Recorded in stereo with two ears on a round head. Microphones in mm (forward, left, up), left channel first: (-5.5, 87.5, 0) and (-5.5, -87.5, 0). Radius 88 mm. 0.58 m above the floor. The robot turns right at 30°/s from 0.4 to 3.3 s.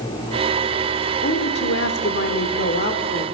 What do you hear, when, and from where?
1.2 s a woman speaking: 70° left, 1.6 m; by 3.2 s 130° left, 1.6 m